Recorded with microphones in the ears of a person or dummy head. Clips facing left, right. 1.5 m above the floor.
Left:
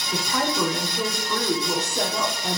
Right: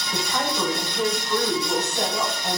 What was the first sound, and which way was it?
A woman speaking, 80° left.